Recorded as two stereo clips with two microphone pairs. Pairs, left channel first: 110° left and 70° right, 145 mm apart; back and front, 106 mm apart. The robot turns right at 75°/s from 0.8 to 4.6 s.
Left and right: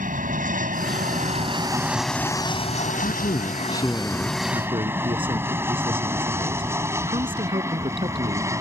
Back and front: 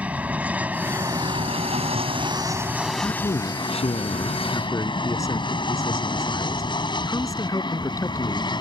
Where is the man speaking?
120° left; by 8.5 s 120° right.